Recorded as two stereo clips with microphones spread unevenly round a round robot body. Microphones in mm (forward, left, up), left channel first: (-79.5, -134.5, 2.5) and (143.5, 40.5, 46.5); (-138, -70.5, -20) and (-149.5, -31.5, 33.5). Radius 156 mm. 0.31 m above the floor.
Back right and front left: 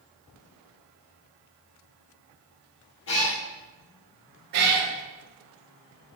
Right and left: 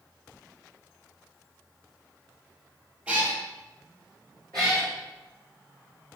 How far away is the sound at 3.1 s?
About 3 m.